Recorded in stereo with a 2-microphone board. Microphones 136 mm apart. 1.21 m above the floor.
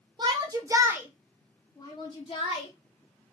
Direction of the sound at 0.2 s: 35° right (ahead or behind).